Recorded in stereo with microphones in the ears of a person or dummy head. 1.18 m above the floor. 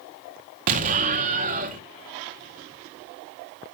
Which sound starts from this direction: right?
An explosion, at 0.7 s.